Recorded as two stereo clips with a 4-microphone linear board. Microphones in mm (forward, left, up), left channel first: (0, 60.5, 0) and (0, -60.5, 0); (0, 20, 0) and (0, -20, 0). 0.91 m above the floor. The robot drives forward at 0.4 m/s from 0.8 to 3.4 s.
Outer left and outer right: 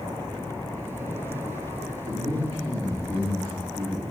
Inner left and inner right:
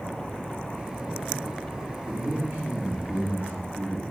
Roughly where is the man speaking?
Right.